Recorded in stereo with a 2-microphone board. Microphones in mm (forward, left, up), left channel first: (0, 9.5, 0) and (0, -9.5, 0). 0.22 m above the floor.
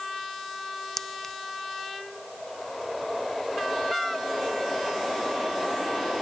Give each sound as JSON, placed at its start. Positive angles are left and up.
{"t": 1.0, "sound": "a clink", "side_deg": 15}